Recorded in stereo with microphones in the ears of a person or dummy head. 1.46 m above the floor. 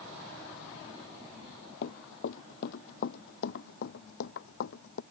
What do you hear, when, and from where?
1.8 s running footsteps: 55° left (ahead or behind); by 5.0 s 70° left (ahead or behind)